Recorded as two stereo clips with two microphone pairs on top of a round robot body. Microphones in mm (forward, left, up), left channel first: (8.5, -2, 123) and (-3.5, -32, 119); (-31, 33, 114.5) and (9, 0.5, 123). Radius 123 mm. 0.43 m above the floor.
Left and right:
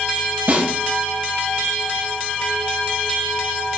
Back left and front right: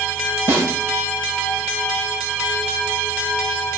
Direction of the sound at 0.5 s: 100° right.